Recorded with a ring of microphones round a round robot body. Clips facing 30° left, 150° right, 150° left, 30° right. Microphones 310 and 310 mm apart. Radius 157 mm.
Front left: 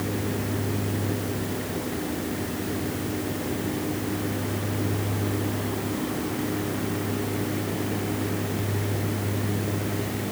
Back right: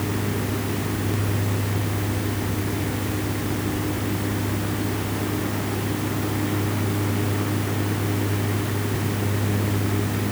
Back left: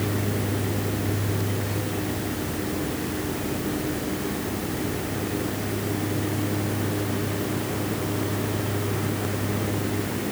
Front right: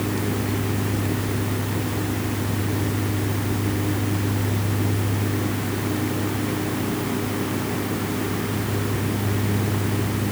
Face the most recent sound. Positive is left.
No sound to turn to.